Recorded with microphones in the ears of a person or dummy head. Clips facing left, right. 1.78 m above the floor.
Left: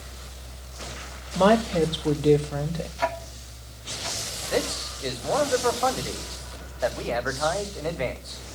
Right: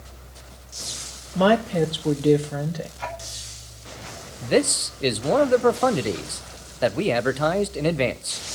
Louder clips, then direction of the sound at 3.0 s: Left 6 dB; 65° left (ahead or behind).